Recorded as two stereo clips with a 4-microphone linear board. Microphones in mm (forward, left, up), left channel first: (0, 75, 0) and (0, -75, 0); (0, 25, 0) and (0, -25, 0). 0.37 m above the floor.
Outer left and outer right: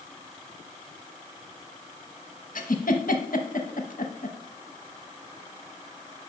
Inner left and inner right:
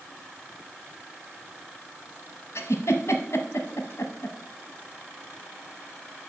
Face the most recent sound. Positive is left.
turn(degrees=65)  # may be behind; listen again after turning